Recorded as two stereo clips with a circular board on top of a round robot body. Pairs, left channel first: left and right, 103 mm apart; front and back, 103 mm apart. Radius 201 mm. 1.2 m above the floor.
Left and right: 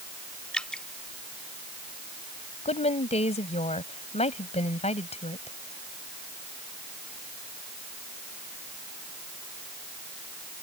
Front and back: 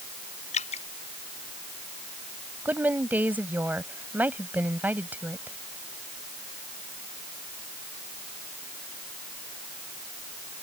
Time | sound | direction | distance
0.5 | dripping | 5° left | ?
2.6 | a woman speaking | 105° left | ?